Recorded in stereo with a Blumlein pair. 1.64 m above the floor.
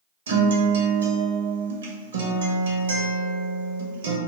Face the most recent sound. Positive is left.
turn(degrees=-65)